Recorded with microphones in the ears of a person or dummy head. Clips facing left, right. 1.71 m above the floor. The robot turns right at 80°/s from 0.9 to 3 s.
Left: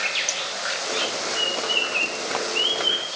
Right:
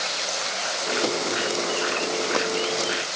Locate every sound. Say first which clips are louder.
0.3 s scissors: right 2 dB; 75° left (ahead or behind), 3.5 m